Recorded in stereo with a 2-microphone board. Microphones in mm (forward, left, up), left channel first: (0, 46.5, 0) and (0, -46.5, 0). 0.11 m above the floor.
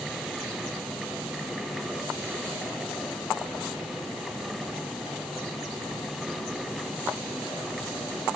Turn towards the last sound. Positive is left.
No sound to turn to.